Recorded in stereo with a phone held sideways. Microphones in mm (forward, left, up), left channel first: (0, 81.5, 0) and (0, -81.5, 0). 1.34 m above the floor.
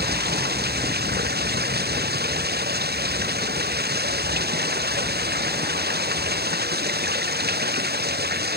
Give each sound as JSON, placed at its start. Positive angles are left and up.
{"t": 0.0, "sound": "running water", "side_deg": -70}